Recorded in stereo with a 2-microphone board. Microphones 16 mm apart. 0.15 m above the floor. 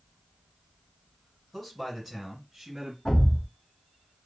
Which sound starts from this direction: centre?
A man speaking, at 1.5 s.